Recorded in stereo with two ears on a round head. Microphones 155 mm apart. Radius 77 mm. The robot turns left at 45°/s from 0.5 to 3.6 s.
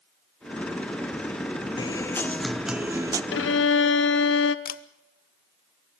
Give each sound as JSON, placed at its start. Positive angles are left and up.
{"t": 1.8, "sound": "a guitar", "azimuth_deg": 35, "distance_m": 0.7}
{"t": 3.3, "sound": "a violin", "side_deg": 70, "distance_m": 1.0}
{"t": 4.7, "sound": "a camera shutter", "side_deg": 50, "distance_m": 0.9}